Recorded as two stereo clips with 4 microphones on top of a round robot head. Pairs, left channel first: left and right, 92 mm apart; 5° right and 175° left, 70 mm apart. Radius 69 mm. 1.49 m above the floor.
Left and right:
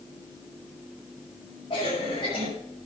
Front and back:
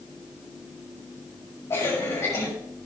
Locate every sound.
1.7 s a cough: 40° left, 7.5 m